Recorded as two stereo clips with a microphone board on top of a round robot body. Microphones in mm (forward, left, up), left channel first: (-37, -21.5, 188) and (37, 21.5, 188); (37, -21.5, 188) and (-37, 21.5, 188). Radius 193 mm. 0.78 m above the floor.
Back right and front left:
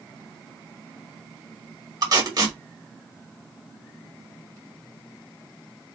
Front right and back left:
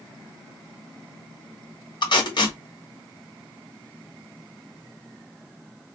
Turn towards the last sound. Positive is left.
turn(degrees=-5)